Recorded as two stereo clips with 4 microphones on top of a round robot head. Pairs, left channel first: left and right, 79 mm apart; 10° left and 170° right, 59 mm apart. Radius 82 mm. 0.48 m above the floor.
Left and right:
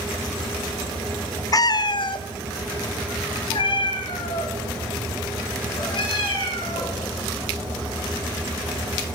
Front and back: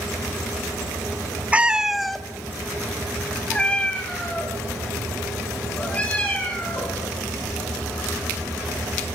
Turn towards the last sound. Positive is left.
turn(degrees=75)